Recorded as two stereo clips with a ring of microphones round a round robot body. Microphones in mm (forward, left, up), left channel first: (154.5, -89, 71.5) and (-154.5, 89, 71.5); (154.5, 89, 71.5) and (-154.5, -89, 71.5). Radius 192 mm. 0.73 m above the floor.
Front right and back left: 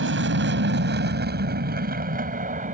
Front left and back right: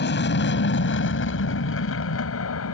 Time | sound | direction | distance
0.0 | an aircraft | 90° left | ?